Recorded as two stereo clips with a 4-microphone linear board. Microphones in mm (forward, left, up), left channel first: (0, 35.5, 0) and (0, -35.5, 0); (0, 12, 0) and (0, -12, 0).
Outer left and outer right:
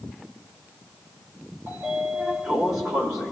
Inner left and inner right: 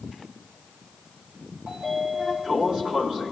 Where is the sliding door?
60° right (ahead or behind), 1.7 m.